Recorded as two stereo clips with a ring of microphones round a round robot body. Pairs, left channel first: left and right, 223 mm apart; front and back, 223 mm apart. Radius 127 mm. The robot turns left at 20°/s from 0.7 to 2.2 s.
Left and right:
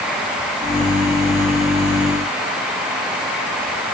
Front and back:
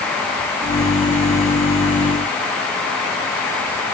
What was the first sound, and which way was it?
Only background noise.